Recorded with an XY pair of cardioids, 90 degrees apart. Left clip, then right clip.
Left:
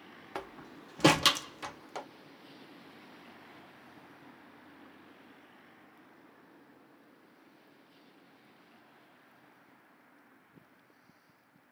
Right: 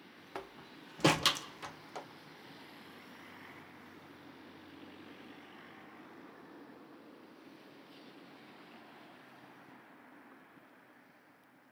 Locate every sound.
0.3 s a door slam: 25° left, 0.7 m